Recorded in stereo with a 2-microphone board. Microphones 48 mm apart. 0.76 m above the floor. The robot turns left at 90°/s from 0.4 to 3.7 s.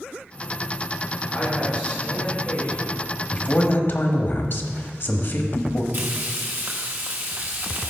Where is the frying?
45° right (ahead or behind), 1.2 m.